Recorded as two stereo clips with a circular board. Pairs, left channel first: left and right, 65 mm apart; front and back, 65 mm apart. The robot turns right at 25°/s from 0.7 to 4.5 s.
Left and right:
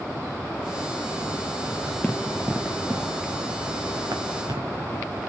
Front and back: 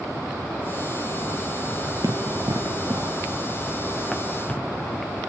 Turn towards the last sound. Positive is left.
turn(degrees=-70)